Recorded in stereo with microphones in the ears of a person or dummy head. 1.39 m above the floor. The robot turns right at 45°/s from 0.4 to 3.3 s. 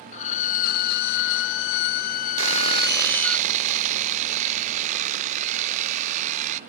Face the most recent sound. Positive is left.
turn(degrees=-40)